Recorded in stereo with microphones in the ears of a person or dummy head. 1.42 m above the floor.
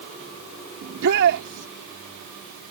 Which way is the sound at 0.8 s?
65° right (ahead or behind).